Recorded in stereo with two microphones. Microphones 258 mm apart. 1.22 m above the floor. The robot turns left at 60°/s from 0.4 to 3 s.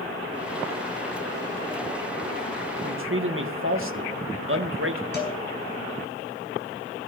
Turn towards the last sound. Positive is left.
turn(degrees=40)  # may be behind; listen again after turning